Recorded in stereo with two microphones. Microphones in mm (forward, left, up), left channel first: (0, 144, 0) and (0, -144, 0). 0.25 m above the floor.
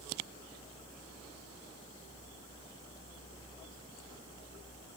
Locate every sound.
Only background noise.